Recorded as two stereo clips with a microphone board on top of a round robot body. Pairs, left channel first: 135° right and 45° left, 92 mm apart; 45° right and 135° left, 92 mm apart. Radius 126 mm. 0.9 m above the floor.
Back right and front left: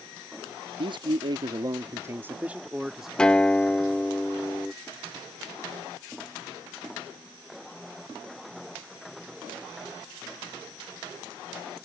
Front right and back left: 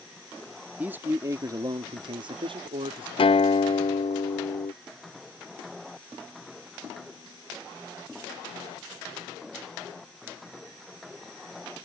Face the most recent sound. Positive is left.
turn(degrees=-55)